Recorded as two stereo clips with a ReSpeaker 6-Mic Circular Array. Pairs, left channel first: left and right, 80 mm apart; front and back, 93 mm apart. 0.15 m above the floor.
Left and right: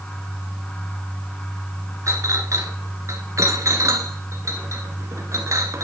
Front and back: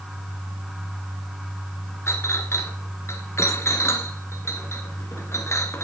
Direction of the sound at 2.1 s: 50° right.